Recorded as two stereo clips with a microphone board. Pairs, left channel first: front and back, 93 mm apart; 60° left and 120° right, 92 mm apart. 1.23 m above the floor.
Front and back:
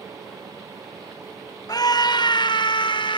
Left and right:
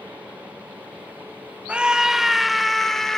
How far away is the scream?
About 1.2 m.